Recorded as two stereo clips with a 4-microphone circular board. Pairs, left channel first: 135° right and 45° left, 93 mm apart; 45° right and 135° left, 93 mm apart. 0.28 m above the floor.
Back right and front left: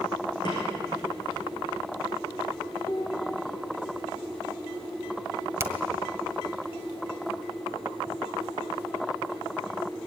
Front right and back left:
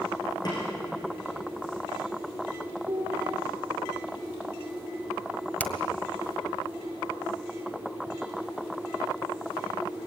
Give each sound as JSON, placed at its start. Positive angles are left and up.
{"t": 0.5, "sound": "a snare drum", "azimuth_deg": -90, "distance_m": 7.5}
{"t": 2.8, "sound": "a piano", "azimuth_deg": -175, "distance_m": 4.0}
{"t": 5.6, "sound": "a finger snap", "azimuth_deg": 15, "distance_m": 1.5}